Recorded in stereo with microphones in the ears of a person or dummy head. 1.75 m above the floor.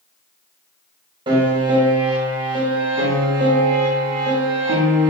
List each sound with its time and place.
1.3 s a piano: 20° right (ahead or behind), 0.7 m